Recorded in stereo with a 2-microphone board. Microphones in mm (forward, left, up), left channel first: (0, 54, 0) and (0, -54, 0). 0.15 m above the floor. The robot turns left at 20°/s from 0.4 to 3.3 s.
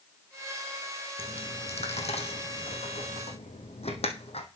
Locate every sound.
1.2 s a dropped coin: 65° left (ahead or behind), 1.4 m; by 4.5 s 70° left (ahead or behind), 1.4 m